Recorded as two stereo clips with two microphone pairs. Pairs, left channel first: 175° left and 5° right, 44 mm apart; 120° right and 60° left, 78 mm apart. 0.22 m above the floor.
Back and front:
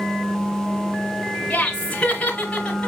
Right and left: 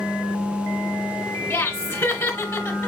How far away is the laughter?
About 1.4 m.